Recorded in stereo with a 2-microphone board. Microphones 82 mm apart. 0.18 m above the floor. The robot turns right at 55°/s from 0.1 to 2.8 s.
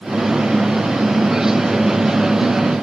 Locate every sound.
Only background noise.